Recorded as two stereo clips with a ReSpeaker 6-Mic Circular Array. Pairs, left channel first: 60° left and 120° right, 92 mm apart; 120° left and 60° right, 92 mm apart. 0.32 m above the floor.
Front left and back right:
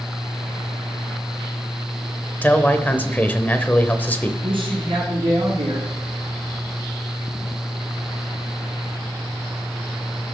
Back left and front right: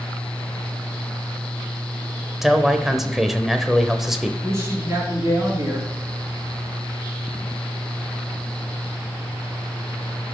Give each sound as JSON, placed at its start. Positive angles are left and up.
{"t": 2.4, "sound": "a man speaking", "azimuth_deg": 20, "distance_m": 0.9}
{"t": 4.4, "sound": "a woman speaking", "azimuth_deg": -115, "distance_m": 4.0}